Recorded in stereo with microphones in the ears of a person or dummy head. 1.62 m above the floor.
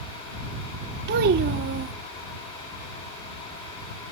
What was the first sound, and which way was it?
A child speaking, 50° right (ahead or behind).